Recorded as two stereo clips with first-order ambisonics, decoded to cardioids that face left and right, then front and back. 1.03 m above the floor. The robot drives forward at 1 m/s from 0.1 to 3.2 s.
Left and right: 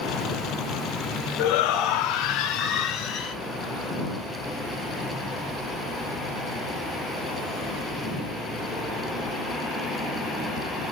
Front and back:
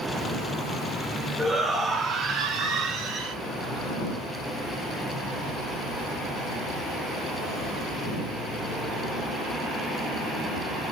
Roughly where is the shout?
Left.